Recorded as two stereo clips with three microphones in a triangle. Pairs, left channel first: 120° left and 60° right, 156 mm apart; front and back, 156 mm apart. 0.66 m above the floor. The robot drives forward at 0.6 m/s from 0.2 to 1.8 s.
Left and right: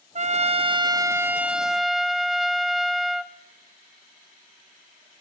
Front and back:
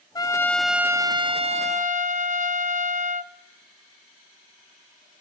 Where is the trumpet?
55° right, 0.7 m; by 3.3 s 150° right, 0.9 m.